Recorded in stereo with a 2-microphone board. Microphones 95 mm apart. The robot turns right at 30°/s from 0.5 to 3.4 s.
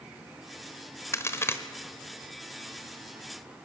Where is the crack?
30° left (ahead or behind), 1.1 m; by 1.6 s 25° left (ahead or behind), 1.1 m.